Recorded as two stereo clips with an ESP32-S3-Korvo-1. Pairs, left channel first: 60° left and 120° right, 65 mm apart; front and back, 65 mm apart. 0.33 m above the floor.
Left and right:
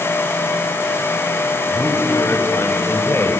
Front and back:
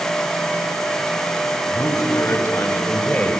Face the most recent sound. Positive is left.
turn(degrees=55)